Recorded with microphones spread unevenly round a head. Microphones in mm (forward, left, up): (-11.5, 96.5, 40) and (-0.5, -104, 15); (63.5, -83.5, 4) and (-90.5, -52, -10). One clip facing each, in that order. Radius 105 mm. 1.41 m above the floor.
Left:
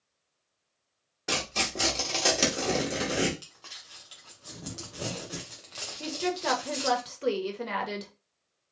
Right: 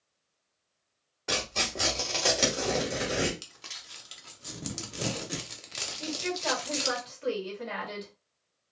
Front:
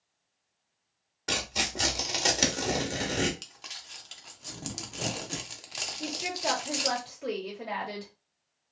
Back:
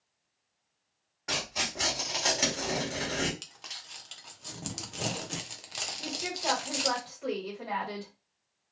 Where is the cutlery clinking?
No cutlery clinking in this recording.